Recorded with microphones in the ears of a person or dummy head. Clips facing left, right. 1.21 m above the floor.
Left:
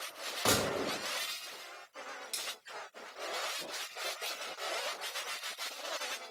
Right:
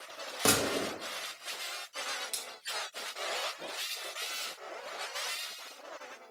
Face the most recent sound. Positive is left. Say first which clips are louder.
# right 1 dB
turn(degrees=-10)  # may be behind; listen again after turning